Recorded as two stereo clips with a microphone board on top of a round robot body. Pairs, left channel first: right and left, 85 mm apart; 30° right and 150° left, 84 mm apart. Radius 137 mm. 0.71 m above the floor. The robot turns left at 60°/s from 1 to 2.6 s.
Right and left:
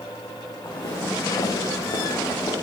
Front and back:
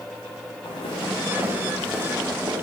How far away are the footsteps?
About 5 m.